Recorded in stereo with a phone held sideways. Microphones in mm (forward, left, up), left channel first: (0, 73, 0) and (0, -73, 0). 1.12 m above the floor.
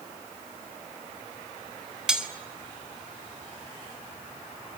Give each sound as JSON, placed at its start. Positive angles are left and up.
{"t": 2.1, "sound": "cutlery clinking", "side_deg": -5, "distance_m": 1.8}